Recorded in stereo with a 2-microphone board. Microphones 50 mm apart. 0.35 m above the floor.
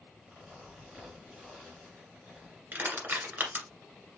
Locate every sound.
0.2 s a zipper: 15° right (ahead or behind), 3.5 m
2.7 s crushing: 35° right (ahead or behind), 1.9 m